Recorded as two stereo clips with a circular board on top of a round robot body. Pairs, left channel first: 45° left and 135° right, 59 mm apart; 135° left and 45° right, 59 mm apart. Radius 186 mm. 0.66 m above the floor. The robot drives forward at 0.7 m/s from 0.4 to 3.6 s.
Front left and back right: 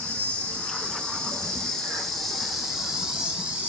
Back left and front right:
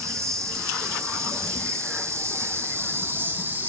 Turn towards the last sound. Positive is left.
turn(degrees=-85)